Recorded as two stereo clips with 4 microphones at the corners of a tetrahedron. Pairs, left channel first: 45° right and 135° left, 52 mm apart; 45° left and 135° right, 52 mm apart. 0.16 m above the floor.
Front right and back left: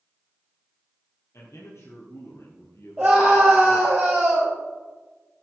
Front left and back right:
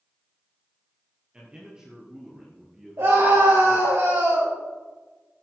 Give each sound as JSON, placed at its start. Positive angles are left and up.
{"t": 1.3, "sound": "a man speaking", "azimuth_deg": -65, "distance_m": 4.0}
{"t": 3.0, "sound": "a scream", "azimuth_deg": -145, "distance_m": 3.5}